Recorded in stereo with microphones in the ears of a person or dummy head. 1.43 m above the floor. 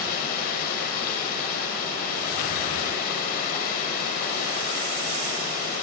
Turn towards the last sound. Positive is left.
turn(degrees=45)  # may be behind; listen again after turning